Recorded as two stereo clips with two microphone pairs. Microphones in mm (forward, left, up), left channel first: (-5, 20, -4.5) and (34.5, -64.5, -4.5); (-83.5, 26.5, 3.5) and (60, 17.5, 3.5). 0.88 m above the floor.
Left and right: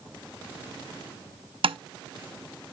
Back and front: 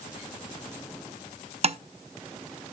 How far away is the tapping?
About 0.5 m.